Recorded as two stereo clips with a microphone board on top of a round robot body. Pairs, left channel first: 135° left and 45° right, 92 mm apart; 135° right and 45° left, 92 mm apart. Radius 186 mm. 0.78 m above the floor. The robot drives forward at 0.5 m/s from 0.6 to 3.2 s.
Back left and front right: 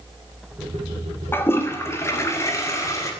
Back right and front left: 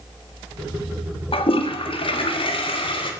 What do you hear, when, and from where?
1.3 s a toilet flushing: 155° right, 1.7 m; by 3.1 s 165° right, 2.5 m